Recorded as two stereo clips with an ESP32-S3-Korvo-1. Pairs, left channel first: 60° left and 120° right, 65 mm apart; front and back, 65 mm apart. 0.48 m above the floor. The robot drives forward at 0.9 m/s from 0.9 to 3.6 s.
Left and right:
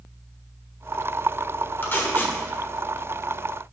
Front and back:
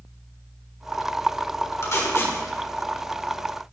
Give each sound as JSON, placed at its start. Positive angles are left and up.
{"t": 1.8, "sound": "tape being pulled", "azimuth_deg": 15, "distance_m": 1.3}